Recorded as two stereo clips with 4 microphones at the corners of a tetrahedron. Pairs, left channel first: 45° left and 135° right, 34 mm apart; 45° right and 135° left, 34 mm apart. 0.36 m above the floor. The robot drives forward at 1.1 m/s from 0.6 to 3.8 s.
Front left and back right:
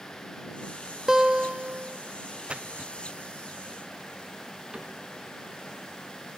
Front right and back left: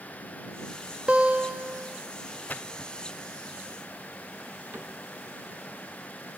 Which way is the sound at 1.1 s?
155° left.